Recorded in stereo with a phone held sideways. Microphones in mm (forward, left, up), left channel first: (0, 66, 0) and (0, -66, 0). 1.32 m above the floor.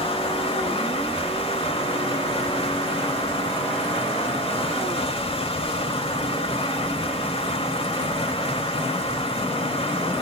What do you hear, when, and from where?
0.0 s running water: 45° left (ahead or behind), 1.7 m